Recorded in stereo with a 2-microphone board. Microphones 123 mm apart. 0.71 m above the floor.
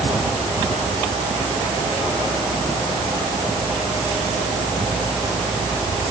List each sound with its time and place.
Only background noise.